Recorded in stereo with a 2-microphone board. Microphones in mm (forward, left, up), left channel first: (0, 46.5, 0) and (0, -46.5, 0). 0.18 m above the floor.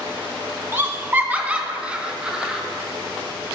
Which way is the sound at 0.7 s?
25° right (ahead or behind).